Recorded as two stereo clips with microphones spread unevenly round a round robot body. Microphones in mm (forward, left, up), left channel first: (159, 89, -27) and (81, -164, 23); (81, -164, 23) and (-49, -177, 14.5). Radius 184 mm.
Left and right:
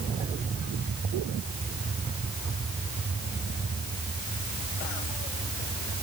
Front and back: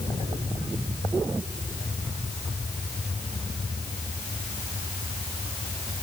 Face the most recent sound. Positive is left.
No sound to turn to.